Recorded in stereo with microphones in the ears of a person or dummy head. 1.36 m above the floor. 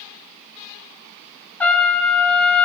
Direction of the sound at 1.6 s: 10° left (ahead or behind).